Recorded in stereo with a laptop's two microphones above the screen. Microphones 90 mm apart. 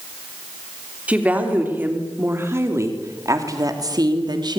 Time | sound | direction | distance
1.1 | a woman speaking | 15° right (ahead or behind) | 3 m